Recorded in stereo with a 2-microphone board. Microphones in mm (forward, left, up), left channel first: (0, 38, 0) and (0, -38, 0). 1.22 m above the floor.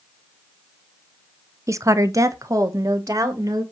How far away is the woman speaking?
About 0.5 m.